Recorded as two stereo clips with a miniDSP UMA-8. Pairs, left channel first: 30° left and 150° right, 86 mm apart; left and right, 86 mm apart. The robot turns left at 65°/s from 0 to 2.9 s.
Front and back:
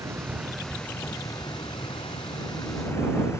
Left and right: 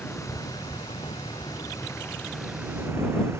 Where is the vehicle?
160° left; by 3.4 s 30° right.